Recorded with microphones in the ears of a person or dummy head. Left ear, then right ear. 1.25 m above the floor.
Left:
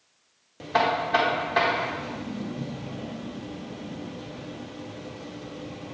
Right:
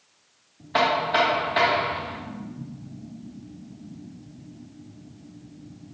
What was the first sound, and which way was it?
Knocking, 20° left (ahead or behind).